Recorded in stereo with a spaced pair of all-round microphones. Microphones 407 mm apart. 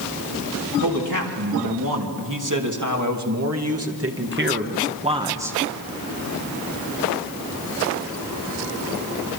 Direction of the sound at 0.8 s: 65° right (ahead or behind).